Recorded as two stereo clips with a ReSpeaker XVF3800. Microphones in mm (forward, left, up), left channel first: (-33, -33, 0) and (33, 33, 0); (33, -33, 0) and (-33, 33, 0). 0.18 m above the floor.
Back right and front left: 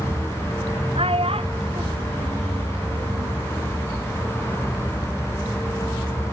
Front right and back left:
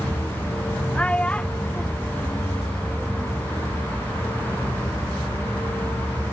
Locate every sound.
0.9 s a child speaking: 30° left